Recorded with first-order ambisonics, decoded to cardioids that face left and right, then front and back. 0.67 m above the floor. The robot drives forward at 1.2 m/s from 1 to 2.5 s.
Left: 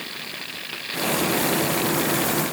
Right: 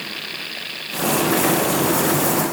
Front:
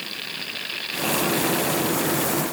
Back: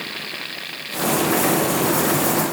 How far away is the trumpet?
I don't hear a trumpet.